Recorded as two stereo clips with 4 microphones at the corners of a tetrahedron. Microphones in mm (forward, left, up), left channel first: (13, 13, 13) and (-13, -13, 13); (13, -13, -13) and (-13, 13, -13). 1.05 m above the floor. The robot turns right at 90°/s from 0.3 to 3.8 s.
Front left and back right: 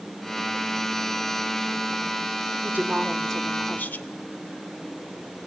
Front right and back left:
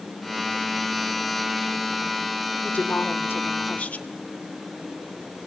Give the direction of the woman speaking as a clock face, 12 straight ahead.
3 o'clock.